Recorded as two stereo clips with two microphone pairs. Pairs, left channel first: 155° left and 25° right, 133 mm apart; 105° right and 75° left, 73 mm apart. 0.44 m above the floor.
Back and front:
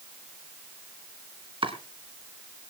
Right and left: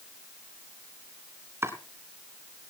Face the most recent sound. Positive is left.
turn(degrees=25)